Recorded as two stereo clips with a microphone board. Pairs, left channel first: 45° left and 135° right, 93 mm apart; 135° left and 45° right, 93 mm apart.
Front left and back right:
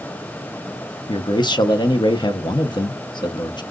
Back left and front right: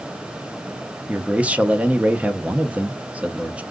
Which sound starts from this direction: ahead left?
A man speaking, at 1.1 s.